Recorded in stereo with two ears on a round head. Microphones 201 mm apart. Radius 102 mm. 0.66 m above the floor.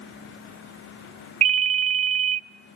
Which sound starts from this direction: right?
A ringtone, at 1.4 s.